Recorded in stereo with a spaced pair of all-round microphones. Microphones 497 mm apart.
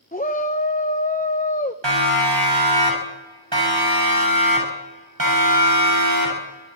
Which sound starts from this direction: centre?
A shout, at 0.1 s.